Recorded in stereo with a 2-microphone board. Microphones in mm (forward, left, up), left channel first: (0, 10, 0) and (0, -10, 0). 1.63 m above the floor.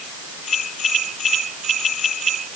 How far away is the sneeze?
No sneeze in this recording.